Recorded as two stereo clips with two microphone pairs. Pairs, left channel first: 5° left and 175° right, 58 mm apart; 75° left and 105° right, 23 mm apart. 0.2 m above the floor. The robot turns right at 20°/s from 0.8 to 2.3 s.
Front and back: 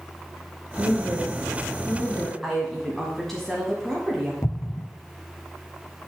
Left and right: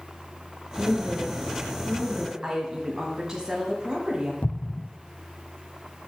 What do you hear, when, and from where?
0.8 s a woman speaking: 55° right, 3 m; by 2.3 s 25° right, 3 m
2.4 s a woman speaking: 80° right, 1.6 m
4.4 s an explosion: 40° left, 0.6 m